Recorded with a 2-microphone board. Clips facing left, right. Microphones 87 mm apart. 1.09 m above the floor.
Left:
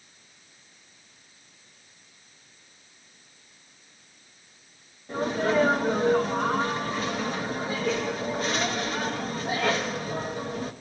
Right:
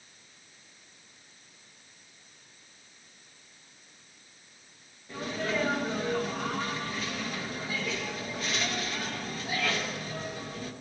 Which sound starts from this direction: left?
A sneeze, at 5.1 s.